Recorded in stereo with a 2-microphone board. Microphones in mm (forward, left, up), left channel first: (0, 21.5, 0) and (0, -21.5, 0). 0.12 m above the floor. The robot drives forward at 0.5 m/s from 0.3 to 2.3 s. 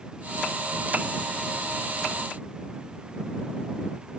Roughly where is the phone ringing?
No phone ringing in this recording.